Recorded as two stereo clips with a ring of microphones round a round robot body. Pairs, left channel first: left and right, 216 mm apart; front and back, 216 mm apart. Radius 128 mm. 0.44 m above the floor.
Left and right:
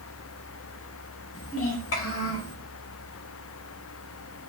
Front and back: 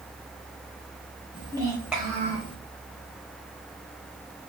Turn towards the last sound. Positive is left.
turn(degrees=60)